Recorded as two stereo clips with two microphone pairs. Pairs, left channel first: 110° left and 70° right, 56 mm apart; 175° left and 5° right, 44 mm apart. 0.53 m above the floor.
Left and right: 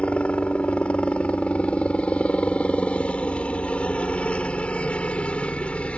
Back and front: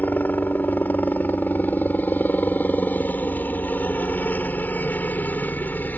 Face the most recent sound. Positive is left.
turn(degrees=165)